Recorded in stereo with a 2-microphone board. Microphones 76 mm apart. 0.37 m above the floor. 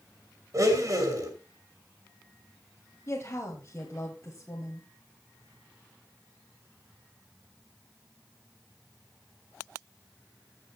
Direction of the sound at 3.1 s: 40° left (ahead or behind).